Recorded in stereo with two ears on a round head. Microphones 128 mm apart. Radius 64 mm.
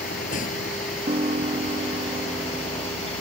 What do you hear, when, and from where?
0.0 s a vehicle: 60° left (ahead or behind); by 3.2 s 45° left (ahead or behind)
1.1 s a piano: 45° right (ahead or behind)